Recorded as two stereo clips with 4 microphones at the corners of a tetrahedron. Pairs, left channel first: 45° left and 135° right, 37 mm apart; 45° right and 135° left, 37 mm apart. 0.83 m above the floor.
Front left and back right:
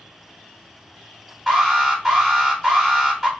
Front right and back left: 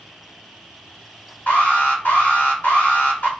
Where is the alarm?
45° right, 1.9 m.